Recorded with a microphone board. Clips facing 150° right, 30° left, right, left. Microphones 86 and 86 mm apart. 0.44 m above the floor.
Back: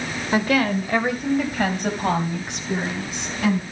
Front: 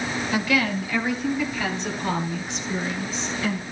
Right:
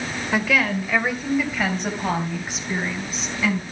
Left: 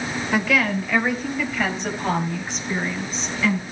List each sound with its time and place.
0.3 s a woman speaking: straight behind, 1.9 m; by 3.6 s 175° right, 5 m